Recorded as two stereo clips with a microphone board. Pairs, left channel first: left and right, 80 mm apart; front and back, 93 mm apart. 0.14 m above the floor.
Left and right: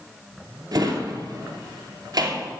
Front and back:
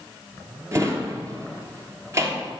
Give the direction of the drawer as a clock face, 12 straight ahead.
4 o'clock.